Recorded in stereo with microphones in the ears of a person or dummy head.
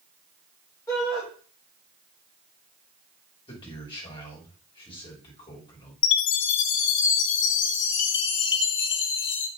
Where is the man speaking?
25° left (ahead or behind), 3 m.